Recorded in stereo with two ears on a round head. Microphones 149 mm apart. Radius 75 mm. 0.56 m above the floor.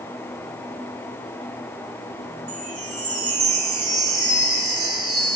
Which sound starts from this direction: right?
A chime, at 2.5 s.